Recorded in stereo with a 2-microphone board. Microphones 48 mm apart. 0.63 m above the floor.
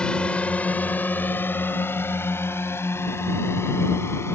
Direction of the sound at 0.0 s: 20° left (ahead or behind).